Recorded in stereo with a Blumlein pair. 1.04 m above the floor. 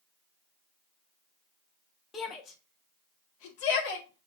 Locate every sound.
2.1 s a shout: 20° left, 1.6 m; by 4.3 s 55° left, 2.5 m